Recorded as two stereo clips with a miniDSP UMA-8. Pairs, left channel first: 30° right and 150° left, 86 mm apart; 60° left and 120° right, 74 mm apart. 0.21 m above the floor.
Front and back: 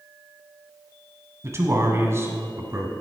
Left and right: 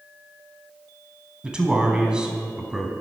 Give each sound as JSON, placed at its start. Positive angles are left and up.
{"t": 1.4, "sound": "a man speaking", "azimuth_deg": 170, "distance_m": 1.2}